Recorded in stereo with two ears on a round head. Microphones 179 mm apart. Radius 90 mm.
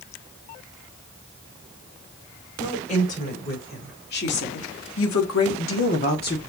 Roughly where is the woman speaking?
Left.